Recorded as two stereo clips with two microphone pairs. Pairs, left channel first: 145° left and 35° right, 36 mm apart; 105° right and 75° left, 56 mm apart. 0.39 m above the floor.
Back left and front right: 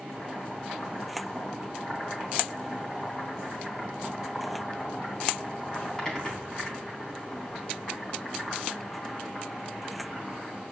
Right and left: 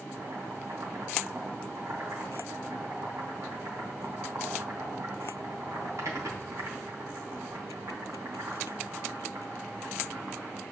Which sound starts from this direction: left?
Boiling, at 0.1 s.